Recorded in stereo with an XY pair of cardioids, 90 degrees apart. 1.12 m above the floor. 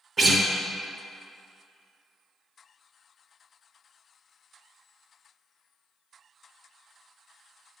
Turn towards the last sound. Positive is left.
turn(degrees=-40)